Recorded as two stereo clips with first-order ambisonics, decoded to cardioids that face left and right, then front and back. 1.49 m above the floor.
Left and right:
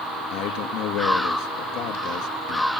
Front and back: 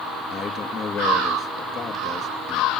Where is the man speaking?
70° left, 2 m.